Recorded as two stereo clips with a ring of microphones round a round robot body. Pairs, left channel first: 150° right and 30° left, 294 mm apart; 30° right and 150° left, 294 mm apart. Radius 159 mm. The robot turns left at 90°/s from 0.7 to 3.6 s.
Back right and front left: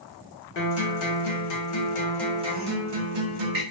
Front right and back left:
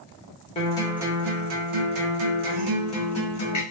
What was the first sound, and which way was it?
A guitar, 100° right.